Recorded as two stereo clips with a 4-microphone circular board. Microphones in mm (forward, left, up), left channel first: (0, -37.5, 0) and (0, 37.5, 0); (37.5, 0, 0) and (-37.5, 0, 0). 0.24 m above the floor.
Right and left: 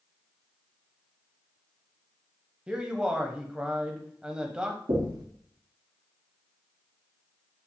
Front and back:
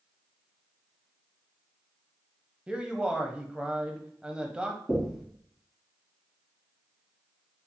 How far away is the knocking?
About 2.5 m.